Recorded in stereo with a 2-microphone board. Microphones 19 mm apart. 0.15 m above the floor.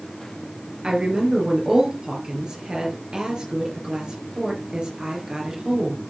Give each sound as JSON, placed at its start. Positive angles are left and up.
{"t": 0.8, "sound": "a woman speaking", "side_deg": -45, "distance_m": 3.0}